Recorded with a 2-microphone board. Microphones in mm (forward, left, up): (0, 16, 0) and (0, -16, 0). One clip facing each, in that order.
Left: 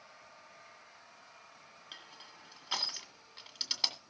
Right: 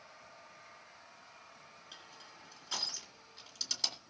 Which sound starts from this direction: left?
Crushing, at 1.9 s.